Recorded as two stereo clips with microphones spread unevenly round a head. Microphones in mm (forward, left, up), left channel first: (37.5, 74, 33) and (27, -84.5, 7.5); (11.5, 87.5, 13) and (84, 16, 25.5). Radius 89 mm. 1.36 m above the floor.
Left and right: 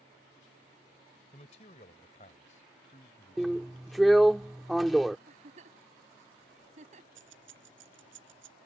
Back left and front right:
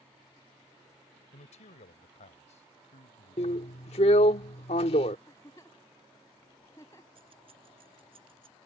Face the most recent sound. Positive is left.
turn(degrees=-105)